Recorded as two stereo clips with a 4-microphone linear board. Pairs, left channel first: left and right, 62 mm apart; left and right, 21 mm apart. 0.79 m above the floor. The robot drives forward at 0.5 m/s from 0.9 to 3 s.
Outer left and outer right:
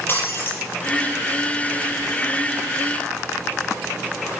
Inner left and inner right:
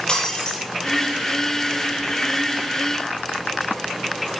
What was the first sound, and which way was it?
Breaking glass, 35° left (ahead or behind).